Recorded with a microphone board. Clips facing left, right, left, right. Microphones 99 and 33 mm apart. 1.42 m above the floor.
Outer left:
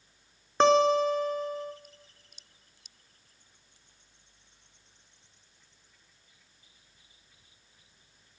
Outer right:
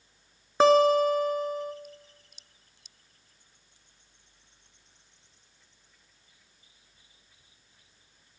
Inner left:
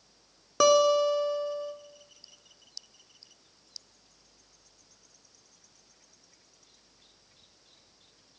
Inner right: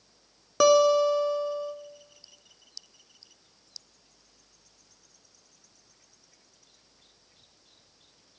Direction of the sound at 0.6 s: 5° right (ahead or behind).